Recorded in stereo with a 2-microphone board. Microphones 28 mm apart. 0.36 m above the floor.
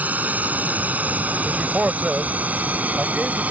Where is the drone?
70° right (ahead or behind); by 3.5 s 60° right (ahead or behind).